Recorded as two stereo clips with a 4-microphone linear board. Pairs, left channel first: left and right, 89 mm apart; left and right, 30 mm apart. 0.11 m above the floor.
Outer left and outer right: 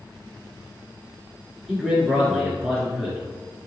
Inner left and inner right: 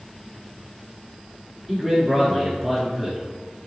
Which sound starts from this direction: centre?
A man speaking, at 1.7 s.